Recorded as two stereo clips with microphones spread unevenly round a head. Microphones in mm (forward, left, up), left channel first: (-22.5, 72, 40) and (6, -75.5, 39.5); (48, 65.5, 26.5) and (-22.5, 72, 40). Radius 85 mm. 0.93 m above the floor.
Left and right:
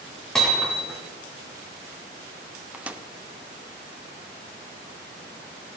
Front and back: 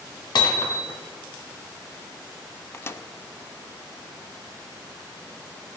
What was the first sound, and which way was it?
Hammering, 15° left.